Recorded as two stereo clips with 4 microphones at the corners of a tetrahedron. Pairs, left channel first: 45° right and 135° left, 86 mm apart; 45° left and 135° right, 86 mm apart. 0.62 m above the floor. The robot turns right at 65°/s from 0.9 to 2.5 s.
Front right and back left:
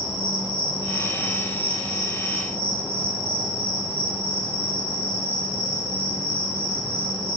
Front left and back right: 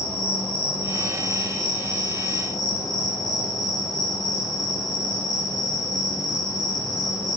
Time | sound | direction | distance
0.0 | an insect | 30° right | 9.5 m